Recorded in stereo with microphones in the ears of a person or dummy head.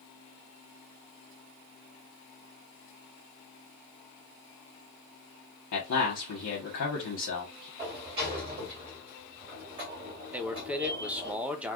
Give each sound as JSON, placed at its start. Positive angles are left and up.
{"t": 5.7, "sound": "a man speaking", "side_deg": 75, "distance_m": 1.3}
{"t": 7.8, "sound": "a sliding door", "side_deg": -25, "distance_m": 2.0}
{"t": 10.3, "sound": "a man speaking", "side_deg": -10, "distance_m": 0.6}